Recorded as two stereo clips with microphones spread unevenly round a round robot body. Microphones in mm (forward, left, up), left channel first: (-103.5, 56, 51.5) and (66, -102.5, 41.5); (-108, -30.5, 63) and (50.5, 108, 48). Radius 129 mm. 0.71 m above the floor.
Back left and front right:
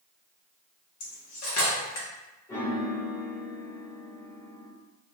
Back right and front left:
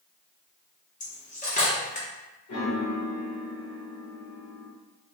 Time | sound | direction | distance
1.0 | cutlery clinking | 165° left | 0.9 m
2.5 | a piano | 145° right | 0.8 m